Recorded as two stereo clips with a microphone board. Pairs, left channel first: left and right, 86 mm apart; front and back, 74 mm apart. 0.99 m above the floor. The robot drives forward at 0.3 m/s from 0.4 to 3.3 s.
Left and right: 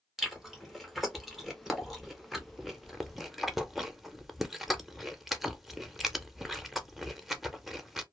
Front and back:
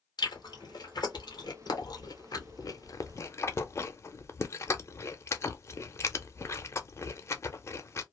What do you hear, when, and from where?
0.2 s chewing: straight ahead, 1.2 m